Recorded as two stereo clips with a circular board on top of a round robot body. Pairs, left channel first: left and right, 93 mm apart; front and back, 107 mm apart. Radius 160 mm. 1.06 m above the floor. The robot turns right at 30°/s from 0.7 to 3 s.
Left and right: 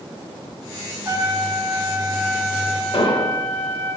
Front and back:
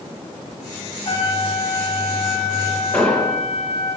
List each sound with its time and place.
1.1 s a trumpet: 45° right, 2.5 m; by 3.9 s 15° left, 2.5 m
2.9 s an explosion: 75° left, 2 m